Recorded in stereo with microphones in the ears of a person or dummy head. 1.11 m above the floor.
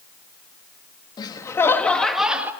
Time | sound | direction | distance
1.2 | laughter | 25° left (ahead or behind) | 1.4 m